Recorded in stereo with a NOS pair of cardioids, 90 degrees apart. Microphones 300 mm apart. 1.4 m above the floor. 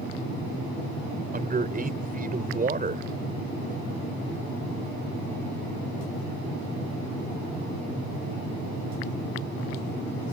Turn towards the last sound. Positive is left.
turn(degrees=-30)